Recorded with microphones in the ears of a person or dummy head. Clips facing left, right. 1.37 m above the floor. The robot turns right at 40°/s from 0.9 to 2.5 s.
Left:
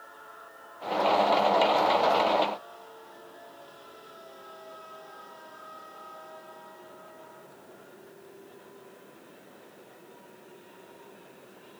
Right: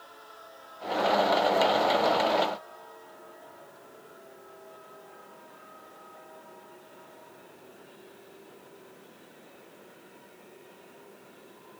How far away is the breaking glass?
I don't hear breaking glass.